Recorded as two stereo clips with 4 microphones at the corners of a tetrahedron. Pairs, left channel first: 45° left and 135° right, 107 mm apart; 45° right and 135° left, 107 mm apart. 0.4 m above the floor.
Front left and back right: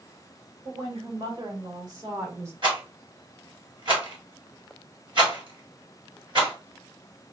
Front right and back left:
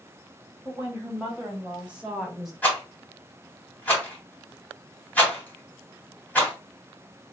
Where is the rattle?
115° right, 2.5 m.